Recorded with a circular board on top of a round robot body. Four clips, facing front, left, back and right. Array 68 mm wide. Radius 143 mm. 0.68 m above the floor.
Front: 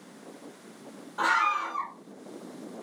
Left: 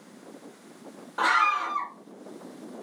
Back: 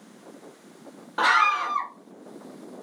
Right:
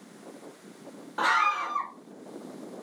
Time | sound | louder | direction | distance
1.2 | a scream | left 2 dB, back 5 dB | straight behind | 0.6 m